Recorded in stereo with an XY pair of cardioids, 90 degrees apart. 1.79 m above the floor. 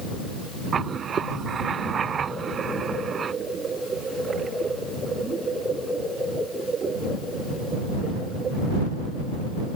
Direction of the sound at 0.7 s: 55° right.